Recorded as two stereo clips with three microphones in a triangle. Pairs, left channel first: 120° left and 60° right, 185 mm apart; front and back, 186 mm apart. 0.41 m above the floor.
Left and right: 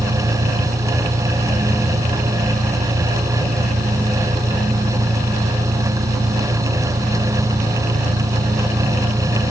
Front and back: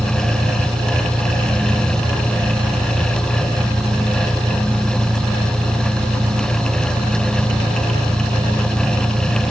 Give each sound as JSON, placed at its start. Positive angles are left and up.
{"t": 0.0, "sound": "an engine running", "azimuth_deg": -110}